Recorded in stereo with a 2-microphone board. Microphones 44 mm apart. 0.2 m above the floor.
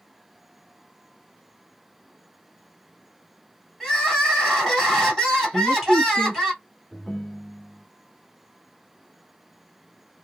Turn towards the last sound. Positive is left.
turn(degrees=10)  # may be behind; listen again after turning